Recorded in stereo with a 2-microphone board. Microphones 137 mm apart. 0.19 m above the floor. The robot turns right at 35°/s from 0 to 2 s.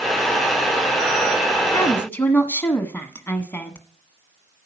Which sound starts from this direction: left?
A woman speaking, at 1.7 s.